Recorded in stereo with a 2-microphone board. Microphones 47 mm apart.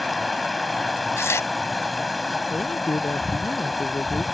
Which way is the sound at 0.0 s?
Centre (ahead or behind).